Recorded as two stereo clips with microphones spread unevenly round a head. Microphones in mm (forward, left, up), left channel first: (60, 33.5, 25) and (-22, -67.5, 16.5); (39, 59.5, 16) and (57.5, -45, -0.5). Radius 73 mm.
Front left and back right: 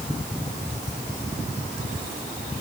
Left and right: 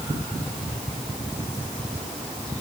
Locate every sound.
Only background noise.